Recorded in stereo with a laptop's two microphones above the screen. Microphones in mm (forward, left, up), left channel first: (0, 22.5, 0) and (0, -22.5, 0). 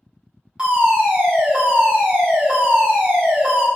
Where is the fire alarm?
25° right (ahead or behind), 1.5 m.